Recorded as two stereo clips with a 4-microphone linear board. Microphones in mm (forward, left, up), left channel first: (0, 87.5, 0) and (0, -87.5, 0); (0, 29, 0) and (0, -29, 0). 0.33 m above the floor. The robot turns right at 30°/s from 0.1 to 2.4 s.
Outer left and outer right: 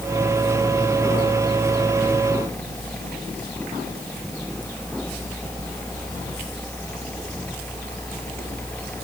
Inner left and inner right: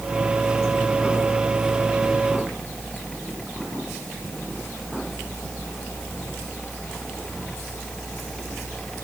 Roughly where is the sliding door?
No sliding door in this recording.